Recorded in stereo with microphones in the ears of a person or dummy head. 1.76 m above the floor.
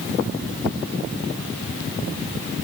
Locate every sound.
Only background noise.